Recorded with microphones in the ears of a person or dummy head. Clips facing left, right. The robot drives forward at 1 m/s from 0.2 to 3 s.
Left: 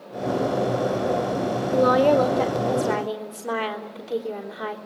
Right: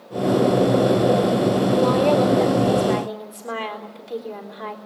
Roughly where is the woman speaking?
Centre.